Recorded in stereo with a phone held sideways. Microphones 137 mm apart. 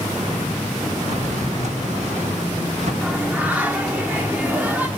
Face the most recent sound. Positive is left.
turn(degrees=-10)  # may be behind; listen again after turning